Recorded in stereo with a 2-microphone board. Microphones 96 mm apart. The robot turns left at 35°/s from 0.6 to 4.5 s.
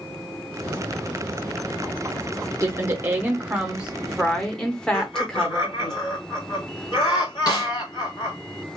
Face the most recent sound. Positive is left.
turn(degrees=45)  # may be behind; listen again after turning